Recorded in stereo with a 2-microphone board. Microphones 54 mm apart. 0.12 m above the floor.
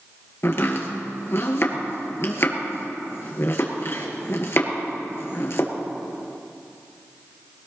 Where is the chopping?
55° left (ahead or behind), 2 m.